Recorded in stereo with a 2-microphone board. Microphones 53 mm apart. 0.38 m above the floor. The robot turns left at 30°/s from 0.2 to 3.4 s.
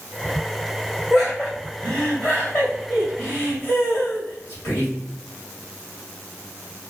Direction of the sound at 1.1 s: Centre (ahead or behind).